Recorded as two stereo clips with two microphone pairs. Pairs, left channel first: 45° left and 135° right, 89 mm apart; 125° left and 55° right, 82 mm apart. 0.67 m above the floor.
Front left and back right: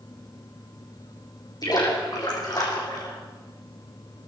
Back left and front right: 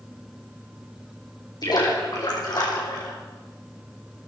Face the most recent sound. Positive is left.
turn(degrees=90)